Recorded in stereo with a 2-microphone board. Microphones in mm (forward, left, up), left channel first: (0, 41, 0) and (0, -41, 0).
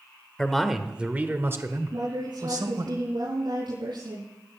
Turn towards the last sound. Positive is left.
turn(degrees=-80)